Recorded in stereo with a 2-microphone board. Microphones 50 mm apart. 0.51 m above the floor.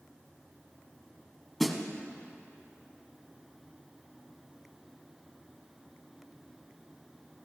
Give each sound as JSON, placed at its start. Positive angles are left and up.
{"t": 1.6, "sound": "a snare drum", "side_deg": 5, "distance_m": 1.3}